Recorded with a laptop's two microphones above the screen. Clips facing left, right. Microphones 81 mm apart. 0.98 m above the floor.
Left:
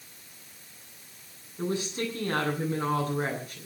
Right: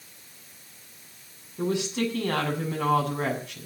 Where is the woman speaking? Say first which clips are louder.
Right 4 dB; 85° right, 8 m.